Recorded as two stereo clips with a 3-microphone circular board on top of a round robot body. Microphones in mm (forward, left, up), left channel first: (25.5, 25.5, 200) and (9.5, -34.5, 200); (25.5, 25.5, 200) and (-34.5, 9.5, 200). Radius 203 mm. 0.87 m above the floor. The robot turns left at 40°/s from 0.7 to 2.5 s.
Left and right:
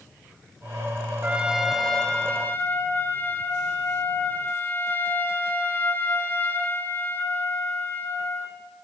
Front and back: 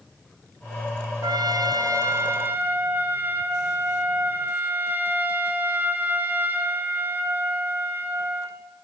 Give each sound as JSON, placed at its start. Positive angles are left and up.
{"t": 1.2, "sound": "a trumpet", "azimuth_deg": -175, "distance_m": 1.9}